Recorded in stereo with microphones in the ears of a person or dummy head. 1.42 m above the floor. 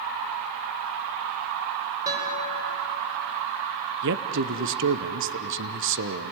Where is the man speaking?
65° right (ahead or behind), 0.9 m.